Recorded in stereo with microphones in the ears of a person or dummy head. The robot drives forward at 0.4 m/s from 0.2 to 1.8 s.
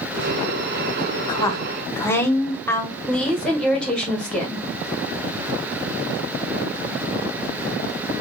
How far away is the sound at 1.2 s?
About 0.6 m.